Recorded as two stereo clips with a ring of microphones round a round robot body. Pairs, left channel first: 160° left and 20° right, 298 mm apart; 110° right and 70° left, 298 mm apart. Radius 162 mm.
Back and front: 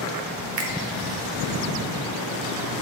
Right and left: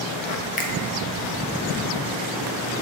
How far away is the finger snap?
About 1.2 m.